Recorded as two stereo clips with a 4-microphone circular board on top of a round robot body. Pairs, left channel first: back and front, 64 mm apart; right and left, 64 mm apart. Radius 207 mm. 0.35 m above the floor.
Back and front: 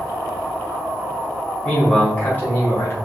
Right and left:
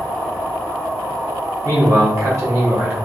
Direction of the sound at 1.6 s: 105° left.